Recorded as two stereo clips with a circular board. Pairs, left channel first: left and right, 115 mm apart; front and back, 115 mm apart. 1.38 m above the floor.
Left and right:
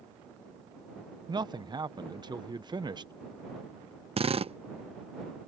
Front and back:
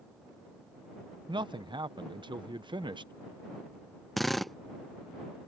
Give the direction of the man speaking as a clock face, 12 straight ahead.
5 o'clock.